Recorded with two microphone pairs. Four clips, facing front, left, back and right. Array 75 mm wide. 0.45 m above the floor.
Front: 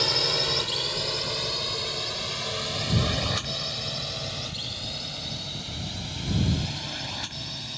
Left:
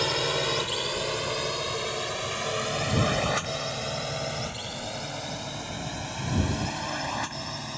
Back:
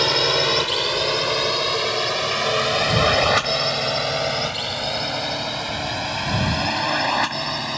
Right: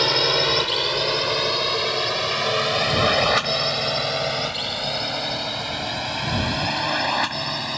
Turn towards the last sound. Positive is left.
turn(degrees=-150)